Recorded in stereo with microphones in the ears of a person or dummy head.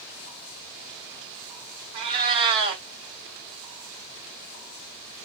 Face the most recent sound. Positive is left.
turn(degrees=-50)  # may be behind; listen again after turning